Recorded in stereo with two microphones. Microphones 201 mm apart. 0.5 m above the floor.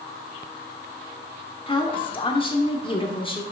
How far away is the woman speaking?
About 1.1 m.